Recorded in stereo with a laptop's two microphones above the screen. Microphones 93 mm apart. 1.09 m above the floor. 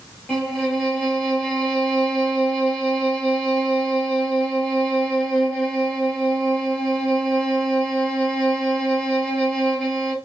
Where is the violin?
20° left (ahead or behind), 1.7 m.